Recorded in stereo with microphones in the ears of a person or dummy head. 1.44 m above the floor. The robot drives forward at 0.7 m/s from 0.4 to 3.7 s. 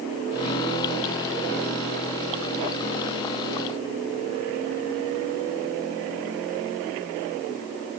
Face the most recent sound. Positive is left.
No sound to turn to.